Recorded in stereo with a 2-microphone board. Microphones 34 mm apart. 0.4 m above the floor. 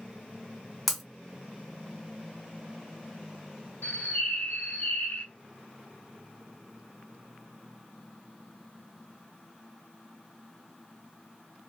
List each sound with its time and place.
0.9 s breaking glass: centre (ahead or behind), 0.8 m
3.8 s a bird: 55° left (ahead or behind), 0.7 m